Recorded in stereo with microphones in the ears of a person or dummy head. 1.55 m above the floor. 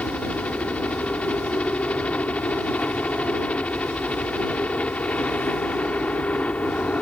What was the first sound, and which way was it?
A helicopter, 10° left (ahead or behind).